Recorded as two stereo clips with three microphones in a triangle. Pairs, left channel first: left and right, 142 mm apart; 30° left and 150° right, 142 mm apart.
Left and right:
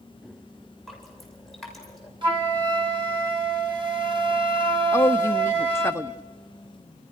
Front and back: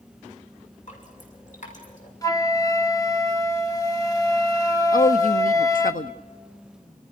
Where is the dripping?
Straight ahead, 7.5 m.